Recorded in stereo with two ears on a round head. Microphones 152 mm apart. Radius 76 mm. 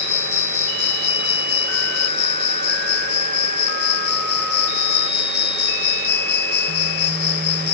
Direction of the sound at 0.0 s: 70° left (ahead or behind).